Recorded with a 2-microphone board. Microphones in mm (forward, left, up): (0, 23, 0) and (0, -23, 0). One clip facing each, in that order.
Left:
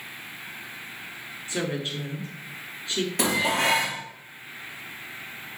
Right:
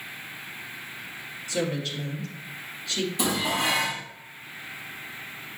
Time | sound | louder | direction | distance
1.5 | a woman speaking | right 1 dB | 25° left (ahead or behind) | 1.8 m
3.2 | dishes clattering | left 3 dB | 65° left (ahead or behind) | 2.5 m